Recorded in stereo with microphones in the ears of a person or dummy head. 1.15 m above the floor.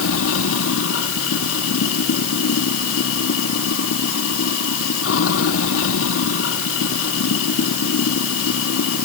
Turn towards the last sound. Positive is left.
turn(degrees=80)